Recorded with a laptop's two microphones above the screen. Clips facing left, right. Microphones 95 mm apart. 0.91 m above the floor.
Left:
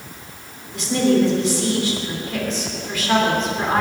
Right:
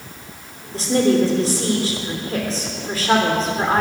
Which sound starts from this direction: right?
A woman speaking, at 0.7 s.